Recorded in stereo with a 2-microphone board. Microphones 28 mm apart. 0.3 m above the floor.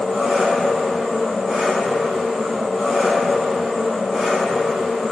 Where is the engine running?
5° right (ahead or behind), 1.0 m.